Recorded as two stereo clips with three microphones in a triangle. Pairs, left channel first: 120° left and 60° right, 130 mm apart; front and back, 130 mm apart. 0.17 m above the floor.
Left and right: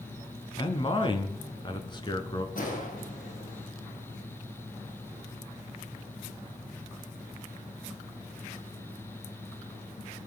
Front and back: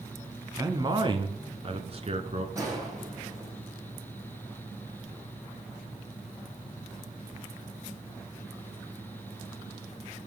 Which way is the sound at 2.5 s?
115° left.